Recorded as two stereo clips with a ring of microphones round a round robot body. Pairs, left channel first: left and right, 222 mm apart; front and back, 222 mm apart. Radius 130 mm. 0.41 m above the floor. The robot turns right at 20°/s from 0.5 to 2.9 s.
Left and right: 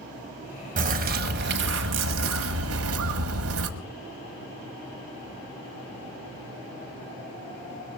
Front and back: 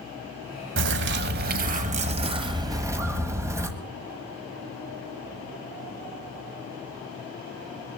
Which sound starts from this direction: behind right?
A bird, at 0.8 s.